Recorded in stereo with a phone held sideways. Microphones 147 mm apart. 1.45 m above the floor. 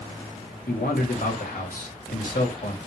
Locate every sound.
0.7 s a man speaking: 85° left, 3.5 m